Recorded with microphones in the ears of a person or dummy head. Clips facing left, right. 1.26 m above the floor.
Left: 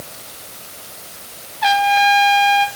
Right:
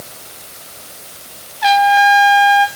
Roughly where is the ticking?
No ticking in this recording.